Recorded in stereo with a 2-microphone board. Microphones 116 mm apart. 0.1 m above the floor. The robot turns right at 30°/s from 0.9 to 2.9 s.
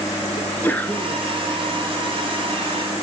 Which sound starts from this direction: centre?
A sneeze, at 0.4 s.